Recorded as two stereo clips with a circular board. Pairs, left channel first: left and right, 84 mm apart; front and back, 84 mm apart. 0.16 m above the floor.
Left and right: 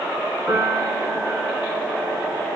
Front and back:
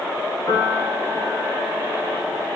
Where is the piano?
20° right, 2 m.